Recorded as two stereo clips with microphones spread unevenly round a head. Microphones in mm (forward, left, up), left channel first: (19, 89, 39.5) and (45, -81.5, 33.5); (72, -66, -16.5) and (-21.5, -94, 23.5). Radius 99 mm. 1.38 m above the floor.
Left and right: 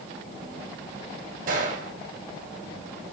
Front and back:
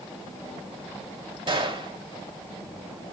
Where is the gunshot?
130° right, 3.5 m.